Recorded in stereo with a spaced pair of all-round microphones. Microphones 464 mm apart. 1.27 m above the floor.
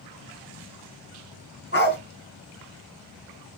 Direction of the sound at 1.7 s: 20° left (ahead or behind).